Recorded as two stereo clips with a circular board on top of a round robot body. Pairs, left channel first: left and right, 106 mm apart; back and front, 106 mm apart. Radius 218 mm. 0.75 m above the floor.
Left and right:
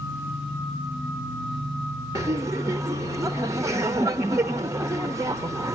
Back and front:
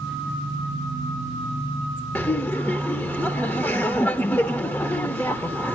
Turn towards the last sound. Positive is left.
turn(degrees=-120)